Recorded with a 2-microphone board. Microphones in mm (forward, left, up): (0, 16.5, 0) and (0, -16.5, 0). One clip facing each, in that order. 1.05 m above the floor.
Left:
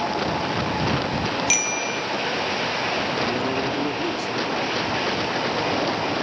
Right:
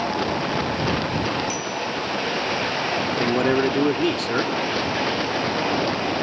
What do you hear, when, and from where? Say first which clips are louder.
1.5 s a bicycle bell: left 2 dB; 85° left
3.1 s a man speaking: right 3 dB; 65° right (ahead or behind)